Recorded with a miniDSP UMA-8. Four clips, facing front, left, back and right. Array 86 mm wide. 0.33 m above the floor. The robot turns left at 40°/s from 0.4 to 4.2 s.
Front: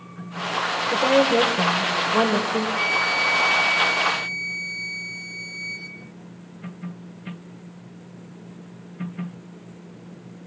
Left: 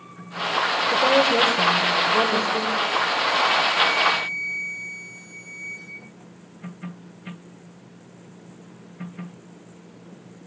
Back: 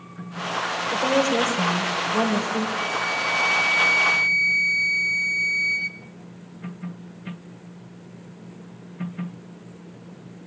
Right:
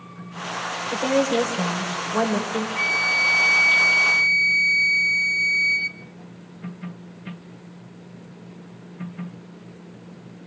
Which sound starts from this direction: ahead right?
A flute, at 2.8 s.